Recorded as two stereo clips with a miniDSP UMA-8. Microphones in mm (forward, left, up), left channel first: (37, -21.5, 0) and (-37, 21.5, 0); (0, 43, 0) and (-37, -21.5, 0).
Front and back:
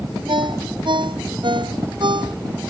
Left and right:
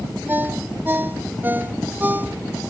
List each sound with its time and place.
0.3 s a ringtone: 175° left